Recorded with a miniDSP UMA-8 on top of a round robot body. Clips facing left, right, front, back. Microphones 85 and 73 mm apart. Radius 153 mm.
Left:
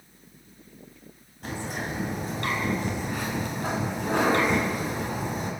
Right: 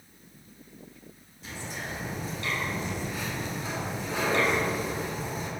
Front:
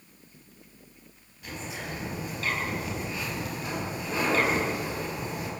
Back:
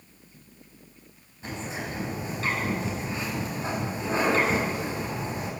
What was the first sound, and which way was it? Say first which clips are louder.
A bird: left 5 dB, back 3 dB; 120° left.